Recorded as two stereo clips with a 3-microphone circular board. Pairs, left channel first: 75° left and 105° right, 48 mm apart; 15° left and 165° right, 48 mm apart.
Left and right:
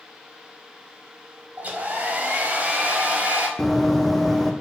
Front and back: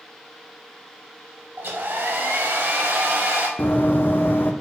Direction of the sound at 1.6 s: 145° right.